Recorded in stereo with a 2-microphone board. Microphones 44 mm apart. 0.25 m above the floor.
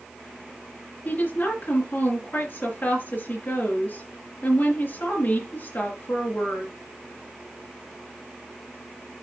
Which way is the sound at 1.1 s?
50° left (ahead or behind).